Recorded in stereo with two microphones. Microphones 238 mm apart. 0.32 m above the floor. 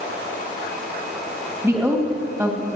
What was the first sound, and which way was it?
A woman speaking, 15° right (ahead or behind).